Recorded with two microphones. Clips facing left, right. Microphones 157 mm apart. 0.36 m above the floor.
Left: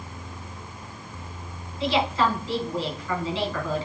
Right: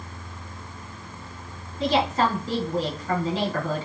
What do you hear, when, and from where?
1.8 s a woman speaking: 45° right (ahead or behind), 3.5 m